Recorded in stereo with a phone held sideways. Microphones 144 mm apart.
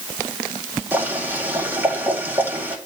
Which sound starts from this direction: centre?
Boiling, at 0.9 s.